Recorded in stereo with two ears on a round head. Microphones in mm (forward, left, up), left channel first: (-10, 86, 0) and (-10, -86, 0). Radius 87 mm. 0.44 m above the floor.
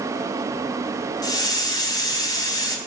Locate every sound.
1.2 s a hiss: 20° left (ahead or behind), 2 m